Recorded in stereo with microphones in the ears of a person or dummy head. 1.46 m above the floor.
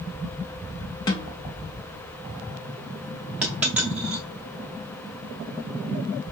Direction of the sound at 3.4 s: 5° right (ahead or behind).